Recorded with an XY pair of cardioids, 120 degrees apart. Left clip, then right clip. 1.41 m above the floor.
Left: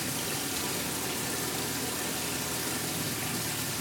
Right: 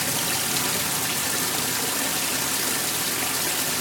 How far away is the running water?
About 1.3 m.